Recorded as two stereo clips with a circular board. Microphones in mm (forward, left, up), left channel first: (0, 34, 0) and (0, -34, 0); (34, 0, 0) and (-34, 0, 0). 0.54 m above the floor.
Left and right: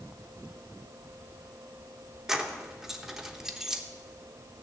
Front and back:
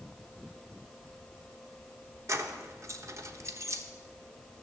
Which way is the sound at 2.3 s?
170° right.